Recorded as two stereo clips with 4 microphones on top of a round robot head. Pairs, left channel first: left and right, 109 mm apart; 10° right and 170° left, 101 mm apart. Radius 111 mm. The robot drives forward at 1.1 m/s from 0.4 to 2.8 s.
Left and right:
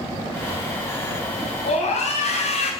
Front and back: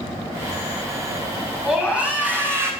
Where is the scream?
85° left, 3.5 m; by 2.7 s 105° left, 3.5 m.